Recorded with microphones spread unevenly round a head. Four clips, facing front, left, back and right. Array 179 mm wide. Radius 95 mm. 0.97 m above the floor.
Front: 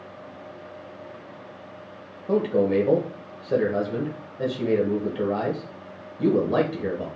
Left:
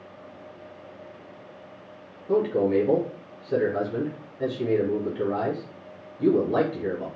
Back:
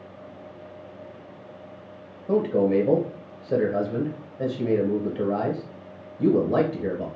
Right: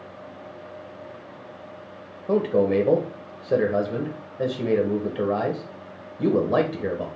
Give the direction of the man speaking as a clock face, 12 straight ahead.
3 o'clock.